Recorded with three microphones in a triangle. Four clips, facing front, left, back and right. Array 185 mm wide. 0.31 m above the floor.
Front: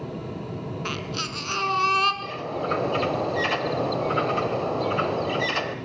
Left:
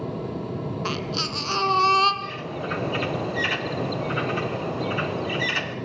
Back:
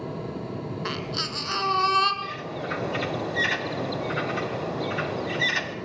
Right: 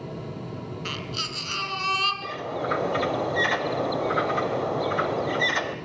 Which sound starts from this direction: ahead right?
A bird, at 2.2 s.